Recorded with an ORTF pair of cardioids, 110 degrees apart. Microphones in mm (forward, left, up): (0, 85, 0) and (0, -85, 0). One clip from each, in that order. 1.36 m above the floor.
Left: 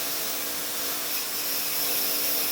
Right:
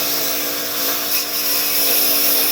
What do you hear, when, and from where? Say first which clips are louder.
0.0 s a lawn mower: right 10 dB; 65° right; by 2.5 s 60° right